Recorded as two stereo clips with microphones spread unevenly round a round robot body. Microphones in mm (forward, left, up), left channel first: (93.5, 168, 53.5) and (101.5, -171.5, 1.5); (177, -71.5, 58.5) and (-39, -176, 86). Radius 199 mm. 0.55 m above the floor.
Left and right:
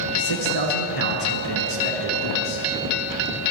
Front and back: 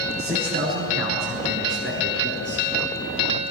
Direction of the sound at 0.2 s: 135° left.